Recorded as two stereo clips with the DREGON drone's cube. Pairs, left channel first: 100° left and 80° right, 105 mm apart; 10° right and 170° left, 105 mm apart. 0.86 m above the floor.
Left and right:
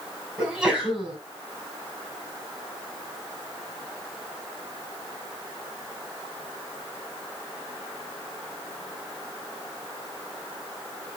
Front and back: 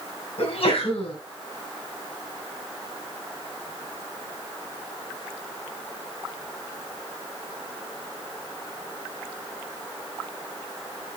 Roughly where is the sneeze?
Ahead.